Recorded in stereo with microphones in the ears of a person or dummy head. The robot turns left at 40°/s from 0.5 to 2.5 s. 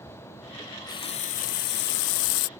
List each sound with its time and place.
0.6 s a running tap: 170° left; by 2.5 s 90° left